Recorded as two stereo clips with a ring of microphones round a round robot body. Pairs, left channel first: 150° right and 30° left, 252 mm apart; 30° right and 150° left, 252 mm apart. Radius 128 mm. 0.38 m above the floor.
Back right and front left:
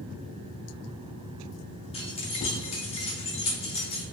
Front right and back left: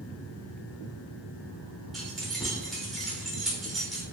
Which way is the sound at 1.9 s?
120° right.